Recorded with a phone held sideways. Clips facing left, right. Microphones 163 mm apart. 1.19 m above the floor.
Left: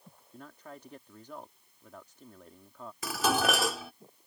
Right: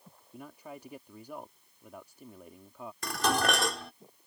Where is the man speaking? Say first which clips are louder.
Right 3 dB; 10° right (ahead or behind).